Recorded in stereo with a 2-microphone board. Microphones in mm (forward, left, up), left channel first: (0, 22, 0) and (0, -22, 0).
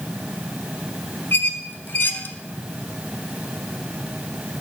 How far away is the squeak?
About 0.6 m.